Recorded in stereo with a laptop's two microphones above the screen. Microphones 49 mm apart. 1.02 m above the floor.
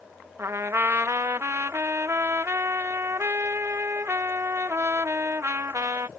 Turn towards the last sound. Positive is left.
turn(degrees=-60)  # may be behind; listen again after turning